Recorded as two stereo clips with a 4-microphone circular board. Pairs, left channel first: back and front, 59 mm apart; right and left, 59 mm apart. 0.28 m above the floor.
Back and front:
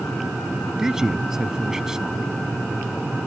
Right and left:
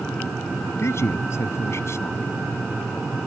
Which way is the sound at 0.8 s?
80° right.